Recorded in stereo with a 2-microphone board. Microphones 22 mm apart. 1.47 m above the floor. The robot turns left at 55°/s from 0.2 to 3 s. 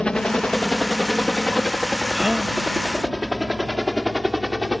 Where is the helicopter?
50° left (ahead or behind); by 4.8 s 15° right (ahead or behind).